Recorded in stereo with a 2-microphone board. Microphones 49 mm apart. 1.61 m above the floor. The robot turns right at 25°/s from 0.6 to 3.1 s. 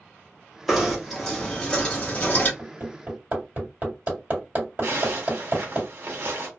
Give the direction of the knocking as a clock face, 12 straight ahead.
12 o'clock.